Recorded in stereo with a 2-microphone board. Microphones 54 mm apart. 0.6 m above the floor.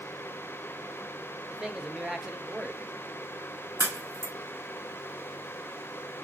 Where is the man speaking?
10° right (ahead or behind), 0.8 m.